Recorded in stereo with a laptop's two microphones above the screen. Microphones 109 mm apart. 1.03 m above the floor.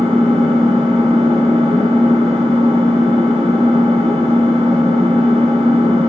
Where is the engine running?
75° right (ahead or behind), 3 m.